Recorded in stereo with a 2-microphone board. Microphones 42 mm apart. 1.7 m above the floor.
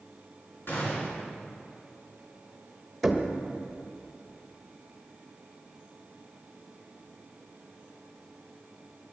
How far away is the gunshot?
About 6 m.